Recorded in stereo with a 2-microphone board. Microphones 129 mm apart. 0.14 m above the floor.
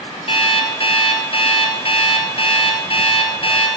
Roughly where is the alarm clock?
Left.